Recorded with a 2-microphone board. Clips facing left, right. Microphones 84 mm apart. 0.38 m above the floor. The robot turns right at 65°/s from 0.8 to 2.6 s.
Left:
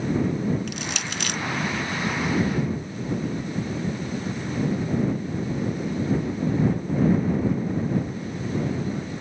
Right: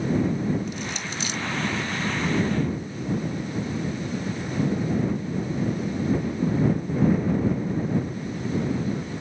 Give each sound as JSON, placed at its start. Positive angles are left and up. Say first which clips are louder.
{"t": 0.7, "sound": "crushing", "louder": "even", "side_deg": 75}